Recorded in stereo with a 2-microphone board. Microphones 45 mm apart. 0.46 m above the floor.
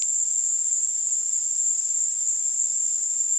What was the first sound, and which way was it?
An insect, 30° right (ahead or behind).